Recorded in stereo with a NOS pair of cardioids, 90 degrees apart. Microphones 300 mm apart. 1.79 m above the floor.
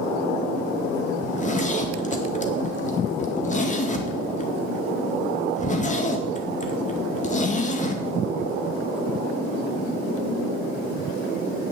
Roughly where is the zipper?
Ahead left.